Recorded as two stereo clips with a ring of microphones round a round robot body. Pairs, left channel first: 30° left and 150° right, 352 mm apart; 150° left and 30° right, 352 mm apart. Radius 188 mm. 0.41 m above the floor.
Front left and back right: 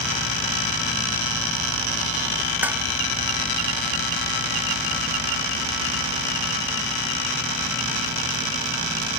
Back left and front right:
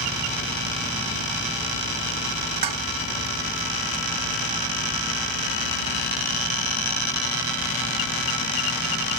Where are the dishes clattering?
65° right.